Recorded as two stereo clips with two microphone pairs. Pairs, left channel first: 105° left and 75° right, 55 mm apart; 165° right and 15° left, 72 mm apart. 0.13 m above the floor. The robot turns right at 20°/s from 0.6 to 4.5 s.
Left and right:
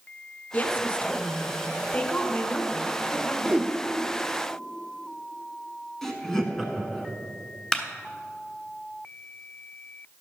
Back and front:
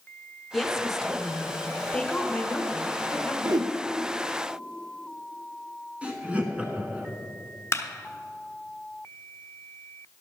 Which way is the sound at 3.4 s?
Straight ahead.